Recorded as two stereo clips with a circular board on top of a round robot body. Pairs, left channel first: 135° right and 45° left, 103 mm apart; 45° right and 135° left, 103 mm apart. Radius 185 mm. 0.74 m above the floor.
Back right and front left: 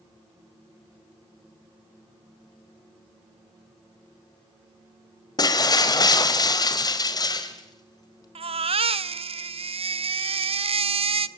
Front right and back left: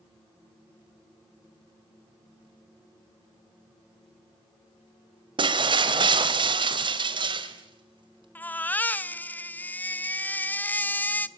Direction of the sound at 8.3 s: 30° left.